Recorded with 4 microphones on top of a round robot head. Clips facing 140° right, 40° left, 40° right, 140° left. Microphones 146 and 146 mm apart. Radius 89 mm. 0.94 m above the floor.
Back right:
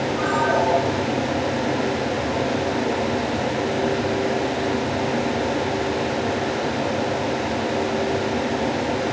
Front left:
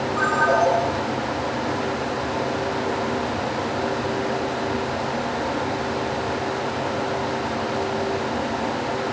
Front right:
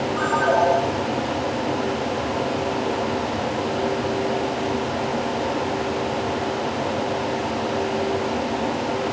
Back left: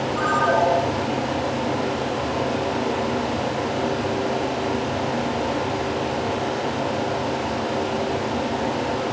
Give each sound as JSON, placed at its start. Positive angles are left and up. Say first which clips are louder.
{"t": 0.2, "sound": "a ringtone", "louder": "front left 2 dB, front right 1 dB", "azimuth_deg": 55, "distance_m": 7.5}